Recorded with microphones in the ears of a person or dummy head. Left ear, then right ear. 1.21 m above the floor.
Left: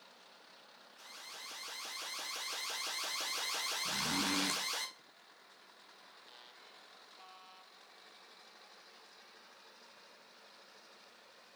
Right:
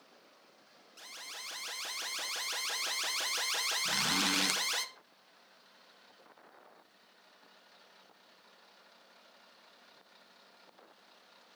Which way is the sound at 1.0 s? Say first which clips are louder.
Right 4 dB; 45° right (ahead or behind).